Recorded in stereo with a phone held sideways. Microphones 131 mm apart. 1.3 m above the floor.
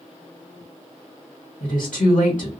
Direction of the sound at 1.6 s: 80° left.